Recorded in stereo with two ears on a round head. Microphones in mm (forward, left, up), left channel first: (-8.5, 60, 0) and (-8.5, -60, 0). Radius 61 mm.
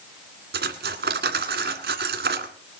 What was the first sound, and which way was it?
Cutlery clinking, 85° right.